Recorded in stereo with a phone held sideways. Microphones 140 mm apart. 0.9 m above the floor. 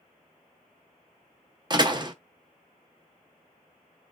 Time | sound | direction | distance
1.7 | a door slam | 30° right (ahead or behind) | 0.6 m